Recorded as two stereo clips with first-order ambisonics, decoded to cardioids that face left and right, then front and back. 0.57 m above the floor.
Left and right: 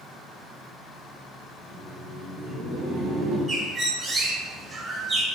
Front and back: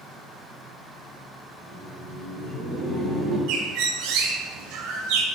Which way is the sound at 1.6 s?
140° right.